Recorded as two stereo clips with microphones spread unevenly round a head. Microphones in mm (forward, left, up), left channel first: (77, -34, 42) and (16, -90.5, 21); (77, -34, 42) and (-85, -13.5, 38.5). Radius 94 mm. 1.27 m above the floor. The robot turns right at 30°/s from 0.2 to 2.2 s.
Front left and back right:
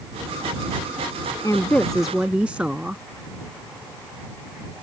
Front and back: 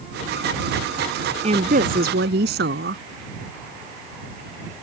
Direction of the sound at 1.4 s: 115° left.